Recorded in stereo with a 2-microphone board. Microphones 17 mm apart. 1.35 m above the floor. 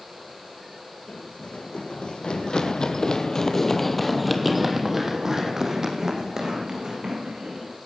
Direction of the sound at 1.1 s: 70° left (ahead or behind).